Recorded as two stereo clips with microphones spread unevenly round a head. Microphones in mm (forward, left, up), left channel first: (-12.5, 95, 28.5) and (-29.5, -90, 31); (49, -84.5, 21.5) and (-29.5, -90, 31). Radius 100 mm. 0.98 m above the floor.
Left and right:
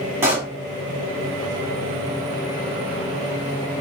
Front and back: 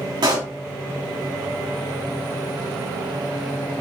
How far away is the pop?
About 2 m.